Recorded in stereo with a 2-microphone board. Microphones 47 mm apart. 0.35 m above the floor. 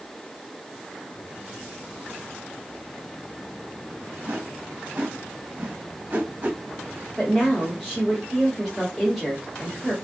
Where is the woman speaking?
5° left (ahead or behind), 1.6 m.